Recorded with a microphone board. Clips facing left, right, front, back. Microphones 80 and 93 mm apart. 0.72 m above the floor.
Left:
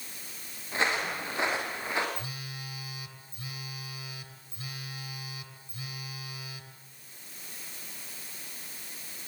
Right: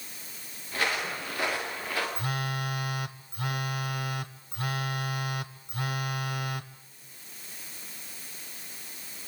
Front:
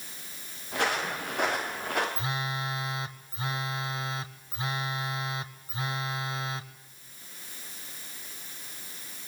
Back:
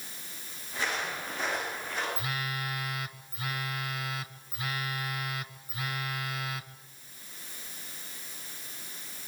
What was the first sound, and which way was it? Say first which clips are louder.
Footsteps: left 1 dB, front 4 dB; 25° left.